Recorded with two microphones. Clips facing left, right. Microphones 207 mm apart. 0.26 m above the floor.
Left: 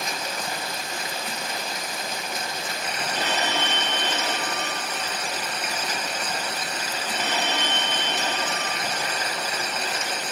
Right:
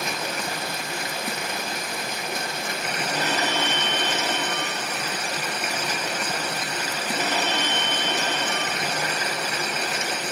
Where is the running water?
65° right (ahead or behind), 1.4 m.